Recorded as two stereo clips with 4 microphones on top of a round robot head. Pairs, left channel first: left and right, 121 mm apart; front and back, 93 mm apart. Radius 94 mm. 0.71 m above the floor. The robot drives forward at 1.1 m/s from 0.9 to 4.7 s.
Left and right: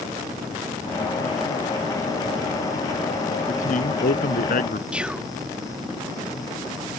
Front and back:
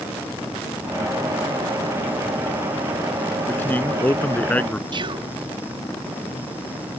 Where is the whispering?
170° right.